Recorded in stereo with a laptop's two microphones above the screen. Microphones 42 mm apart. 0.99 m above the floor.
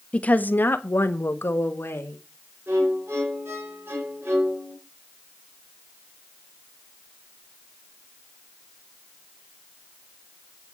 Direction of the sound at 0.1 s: 25° left (ahead or behind).